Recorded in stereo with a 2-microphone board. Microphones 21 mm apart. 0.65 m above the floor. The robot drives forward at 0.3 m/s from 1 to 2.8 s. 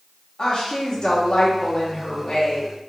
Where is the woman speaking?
40° left (ahead or behind), 0.7 m; by 2.7 s 35° left (ahead or behind), 0.7 m.